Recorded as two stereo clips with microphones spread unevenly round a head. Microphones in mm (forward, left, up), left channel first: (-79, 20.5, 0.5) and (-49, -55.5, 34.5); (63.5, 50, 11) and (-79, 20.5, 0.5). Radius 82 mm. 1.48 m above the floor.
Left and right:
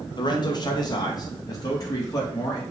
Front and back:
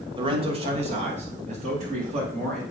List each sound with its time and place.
0.1 s a man speaking: 135° left, 1.5 m; by 2.6 s 155° left, 4 m